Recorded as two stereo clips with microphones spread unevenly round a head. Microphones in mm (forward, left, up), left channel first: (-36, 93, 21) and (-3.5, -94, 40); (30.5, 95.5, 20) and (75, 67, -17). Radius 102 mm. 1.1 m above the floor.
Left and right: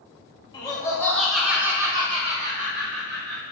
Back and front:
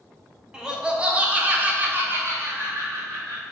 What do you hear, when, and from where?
0.5 s laughter: 35° left, 1.2 m; by 3.4 s 45° right, 1.3 m